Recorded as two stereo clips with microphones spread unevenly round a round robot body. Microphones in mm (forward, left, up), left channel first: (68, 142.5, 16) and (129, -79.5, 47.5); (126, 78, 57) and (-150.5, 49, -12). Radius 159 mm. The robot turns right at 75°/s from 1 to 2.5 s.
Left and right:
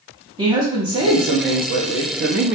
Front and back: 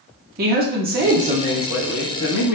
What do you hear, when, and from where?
0.4 s a woman speaking: 150° right, 0.7 m; by 2.5 s 40° right, 0.7 m